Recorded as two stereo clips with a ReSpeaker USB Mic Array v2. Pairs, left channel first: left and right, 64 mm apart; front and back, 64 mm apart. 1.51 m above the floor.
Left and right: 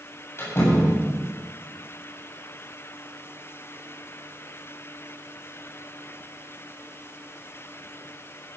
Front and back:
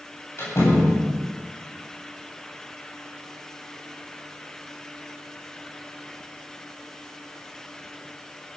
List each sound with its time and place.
0.4 s a door slam: 45° left, 8 m